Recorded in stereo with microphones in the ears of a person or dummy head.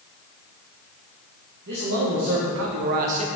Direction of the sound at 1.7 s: 50° right (ahead or behind).